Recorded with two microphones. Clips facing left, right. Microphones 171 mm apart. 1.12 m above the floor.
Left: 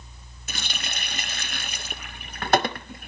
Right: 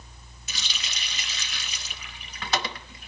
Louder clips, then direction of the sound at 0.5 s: Left 6 dB; 55° left (ahead or behind).